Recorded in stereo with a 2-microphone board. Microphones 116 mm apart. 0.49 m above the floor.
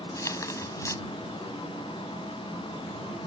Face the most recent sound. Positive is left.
turn(degrees=25)  # may be behind; listen again after turning